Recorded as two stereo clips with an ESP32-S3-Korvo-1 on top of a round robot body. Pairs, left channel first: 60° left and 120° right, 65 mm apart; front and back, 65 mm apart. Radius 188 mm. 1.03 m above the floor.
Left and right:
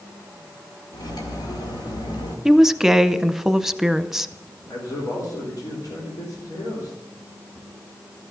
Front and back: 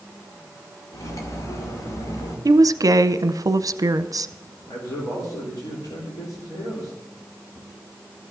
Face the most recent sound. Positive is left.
turn(degrees=30)